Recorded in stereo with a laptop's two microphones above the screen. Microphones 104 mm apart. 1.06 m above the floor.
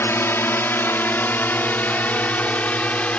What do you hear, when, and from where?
0.0 s a drone: 20° left (ahead or behind); by 3.2 s 15° left (ahead or behind)